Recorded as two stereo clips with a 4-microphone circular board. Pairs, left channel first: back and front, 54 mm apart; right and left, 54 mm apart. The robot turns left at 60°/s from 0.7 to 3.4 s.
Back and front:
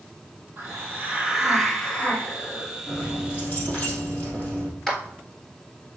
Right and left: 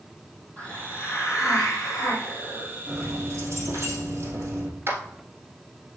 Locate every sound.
0.6 s a hiss: 35° right, 2 m; by 3.1 s 175° right, 2 m
2.9 s keys jangling: 150° left, 2.5 m; by 4.7 s 120° left, 2.5 m
4.9 s a clap: 95° left, 1.7 m